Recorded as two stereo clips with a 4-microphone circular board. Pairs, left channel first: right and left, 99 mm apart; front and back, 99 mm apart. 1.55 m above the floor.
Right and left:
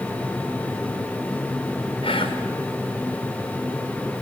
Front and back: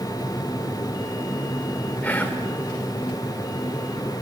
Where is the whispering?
75° right, 6 m.